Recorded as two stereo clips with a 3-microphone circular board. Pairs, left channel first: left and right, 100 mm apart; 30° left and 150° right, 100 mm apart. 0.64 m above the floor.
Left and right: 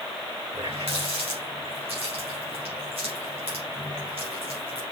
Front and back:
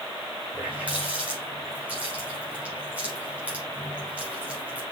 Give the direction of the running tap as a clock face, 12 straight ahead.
2 o'clock.